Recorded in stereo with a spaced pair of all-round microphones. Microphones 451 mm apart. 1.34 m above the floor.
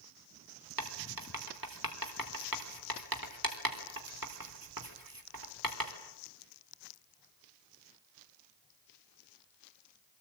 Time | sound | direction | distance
0.8 | writing | 50° right (ahead or behind) | 3.5 m